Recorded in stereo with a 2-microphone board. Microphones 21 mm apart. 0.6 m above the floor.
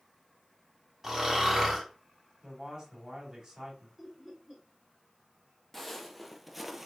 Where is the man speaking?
30° right (ahead or behind), 2 m.